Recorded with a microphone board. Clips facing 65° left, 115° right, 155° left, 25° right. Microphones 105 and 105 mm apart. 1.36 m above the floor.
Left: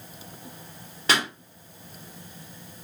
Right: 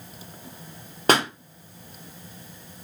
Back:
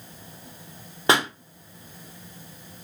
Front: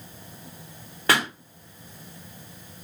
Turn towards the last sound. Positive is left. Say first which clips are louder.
# right 5 dB, back 2 dB
turn(degrees=-140)